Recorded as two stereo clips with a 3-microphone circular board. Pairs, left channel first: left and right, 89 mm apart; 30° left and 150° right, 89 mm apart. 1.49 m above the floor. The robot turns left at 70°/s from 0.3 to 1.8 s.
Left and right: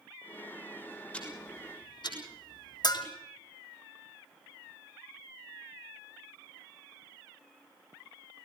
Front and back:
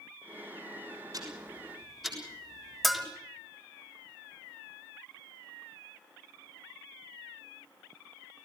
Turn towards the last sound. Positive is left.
turn(degrees=120)